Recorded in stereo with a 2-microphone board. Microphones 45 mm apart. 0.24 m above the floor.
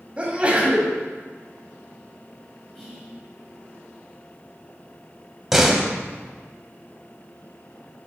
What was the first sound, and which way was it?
A sneeze, 25° right (ahead or behind).